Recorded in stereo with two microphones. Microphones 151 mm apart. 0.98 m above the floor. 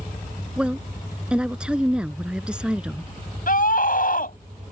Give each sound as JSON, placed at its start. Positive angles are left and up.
{"t": 0.6, "sound": "a woman speaking", "side_deg": -5}
{"t": 3.5, "sound": "a scream", "side_deg": 60}